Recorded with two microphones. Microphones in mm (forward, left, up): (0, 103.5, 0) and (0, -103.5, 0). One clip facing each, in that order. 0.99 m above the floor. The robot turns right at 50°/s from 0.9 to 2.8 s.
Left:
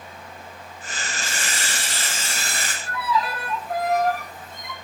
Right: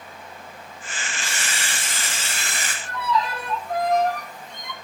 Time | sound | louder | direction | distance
1.2 | a camera shutter | left 1 dB | 85° right | 8.5 m
2.8 | a violin | even | 5° left (ahead or behind) | 3 m